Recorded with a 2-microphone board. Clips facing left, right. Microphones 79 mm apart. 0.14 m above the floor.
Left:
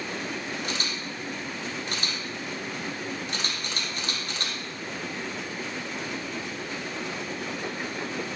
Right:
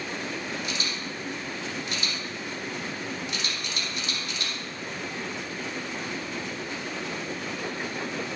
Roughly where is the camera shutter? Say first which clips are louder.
Even; left.